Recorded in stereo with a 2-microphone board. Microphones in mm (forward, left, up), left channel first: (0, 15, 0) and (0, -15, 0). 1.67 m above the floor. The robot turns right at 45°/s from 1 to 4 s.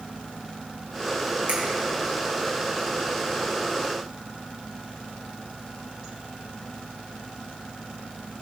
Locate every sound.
1.5 s a finger snap: 60° right (ahead or behind), 3 m; by 1.6 s 65° right (ahead or behind), 3 m